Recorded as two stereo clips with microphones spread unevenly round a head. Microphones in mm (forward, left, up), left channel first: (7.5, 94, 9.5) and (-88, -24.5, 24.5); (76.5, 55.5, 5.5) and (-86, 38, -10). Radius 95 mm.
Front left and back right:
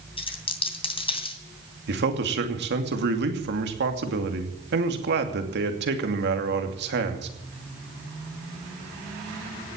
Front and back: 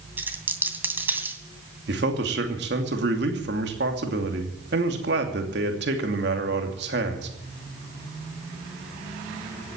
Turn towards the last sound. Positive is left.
turn(degrees=-135)